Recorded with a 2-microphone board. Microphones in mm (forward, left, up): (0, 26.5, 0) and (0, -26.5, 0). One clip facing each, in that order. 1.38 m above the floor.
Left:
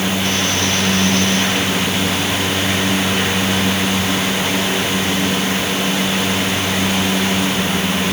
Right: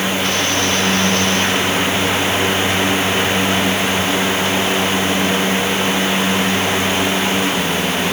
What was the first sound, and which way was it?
Only background noise.